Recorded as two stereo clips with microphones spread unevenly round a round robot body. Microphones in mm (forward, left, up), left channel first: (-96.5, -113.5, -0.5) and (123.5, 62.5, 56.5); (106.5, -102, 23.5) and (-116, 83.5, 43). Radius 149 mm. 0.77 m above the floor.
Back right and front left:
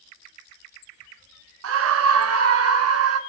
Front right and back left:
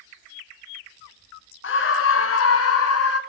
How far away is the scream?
About 1.5 m.